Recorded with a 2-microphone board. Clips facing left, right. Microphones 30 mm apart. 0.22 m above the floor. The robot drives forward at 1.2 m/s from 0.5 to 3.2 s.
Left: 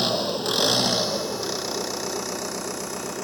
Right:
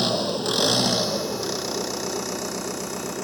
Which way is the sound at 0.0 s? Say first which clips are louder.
Right 1 dB; centre (ahead or behind).